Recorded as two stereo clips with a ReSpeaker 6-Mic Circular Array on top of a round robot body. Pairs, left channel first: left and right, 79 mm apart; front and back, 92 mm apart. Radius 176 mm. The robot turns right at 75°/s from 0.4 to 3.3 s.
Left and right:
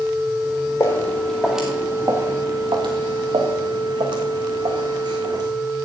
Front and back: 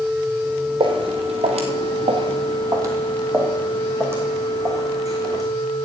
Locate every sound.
0.8 s footsteps: 150° left, 1.3 m; by 5.4 s 125° right, 2.5 m